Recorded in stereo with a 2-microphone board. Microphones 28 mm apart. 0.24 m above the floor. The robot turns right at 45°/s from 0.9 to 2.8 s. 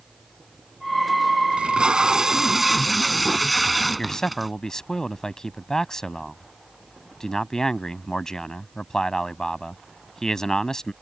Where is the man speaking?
20° left (ahead or behind).